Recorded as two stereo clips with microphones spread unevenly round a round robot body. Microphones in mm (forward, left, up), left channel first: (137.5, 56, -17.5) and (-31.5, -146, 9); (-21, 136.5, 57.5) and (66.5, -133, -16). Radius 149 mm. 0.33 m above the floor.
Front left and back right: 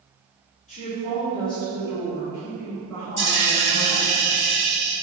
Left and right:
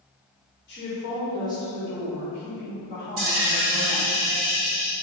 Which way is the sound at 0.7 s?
65° left.